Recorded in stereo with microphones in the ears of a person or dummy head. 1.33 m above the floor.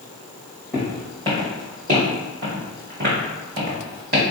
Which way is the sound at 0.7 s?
10° right (ahead or behind).